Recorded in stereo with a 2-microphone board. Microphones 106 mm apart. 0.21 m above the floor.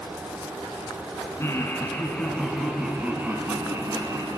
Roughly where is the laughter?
Left.